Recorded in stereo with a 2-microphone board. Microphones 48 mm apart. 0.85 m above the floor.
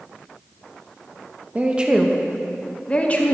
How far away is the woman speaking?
About 0.7 m.